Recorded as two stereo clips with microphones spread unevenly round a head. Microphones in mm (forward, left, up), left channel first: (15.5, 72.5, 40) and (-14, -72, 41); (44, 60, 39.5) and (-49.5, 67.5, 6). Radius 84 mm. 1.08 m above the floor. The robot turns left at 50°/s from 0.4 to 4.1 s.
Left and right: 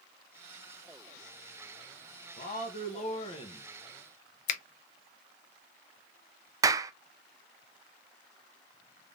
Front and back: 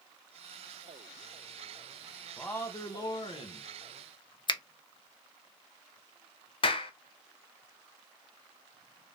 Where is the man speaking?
85° left, 1.1 m; by 3.7 s 20° left, 1.1 m.